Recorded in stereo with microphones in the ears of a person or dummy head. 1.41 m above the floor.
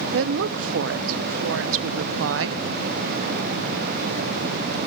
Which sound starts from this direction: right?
A woman speaking, at 0.1 s.